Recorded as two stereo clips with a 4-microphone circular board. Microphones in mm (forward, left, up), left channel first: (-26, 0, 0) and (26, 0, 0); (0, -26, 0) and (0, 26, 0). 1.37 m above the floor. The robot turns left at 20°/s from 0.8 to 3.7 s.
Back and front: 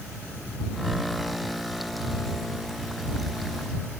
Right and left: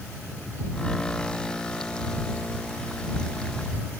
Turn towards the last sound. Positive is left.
No sound to turn to.